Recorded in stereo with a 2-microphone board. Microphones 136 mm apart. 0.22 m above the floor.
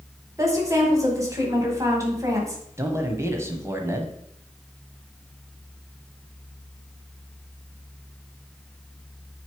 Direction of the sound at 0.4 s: 25° right (ahead or behind).